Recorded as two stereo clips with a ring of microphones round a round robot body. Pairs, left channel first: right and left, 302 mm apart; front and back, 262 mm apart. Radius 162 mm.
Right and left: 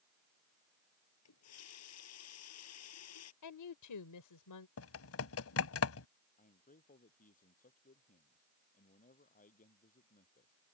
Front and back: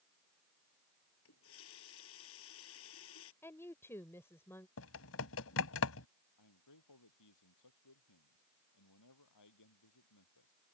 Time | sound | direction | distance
1.2 | a running tap | 50° right | ?
3.4 | a woman speaking | 80° right | ?
4.8 | typing on a keyboard | 45° right | ?
6.4 | a man speaking | 25° right | ?